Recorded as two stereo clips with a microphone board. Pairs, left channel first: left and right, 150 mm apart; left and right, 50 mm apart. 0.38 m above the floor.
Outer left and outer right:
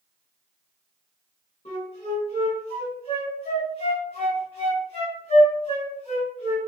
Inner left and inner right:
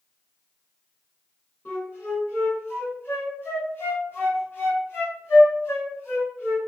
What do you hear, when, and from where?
1.6 s a flute: 40° left (ahead or behind), 1.5 m